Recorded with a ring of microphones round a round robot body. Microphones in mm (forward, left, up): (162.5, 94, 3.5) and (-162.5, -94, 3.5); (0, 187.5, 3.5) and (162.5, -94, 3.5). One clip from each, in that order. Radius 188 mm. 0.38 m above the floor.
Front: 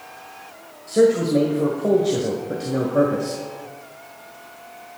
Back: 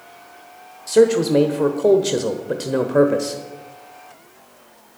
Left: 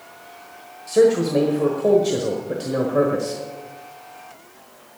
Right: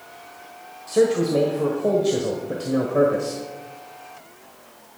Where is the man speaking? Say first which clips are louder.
Back 2 dB, left 3 dB; 160° right, 1.2 m.